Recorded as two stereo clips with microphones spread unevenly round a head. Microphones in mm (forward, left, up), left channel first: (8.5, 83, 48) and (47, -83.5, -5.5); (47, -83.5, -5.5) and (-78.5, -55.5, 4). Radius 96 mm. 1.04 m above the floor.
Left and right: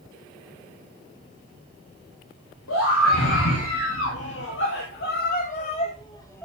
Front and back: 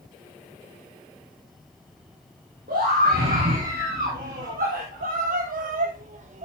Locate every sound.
2.7 s a scream: 120° left, 3 m; by 6.5 s 170° right, 1.2 m